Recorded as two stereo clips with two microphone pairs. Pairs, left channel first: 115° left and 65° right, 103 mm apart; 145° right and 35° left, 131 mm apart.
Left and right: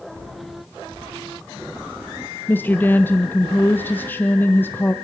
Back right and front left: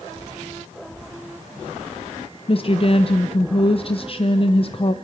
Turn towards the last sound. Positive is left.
turn(degrees=180)